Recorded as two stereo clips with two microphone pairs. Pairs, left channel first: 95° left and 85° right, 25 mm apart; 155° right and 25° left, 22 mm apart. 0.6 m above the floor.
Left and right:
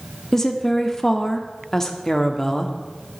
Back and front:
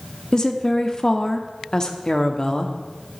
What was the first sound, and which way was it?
A woman speaking, 160° left.